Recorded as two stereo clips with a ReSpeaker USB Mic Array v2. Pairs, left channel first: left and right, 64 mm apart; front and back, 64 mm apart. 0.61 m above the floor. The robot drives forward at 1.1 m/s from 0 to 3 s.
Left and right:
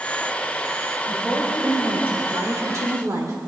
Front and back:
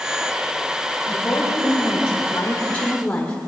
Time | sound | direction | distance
1.1 | a woman speaking | 30° right | 3 m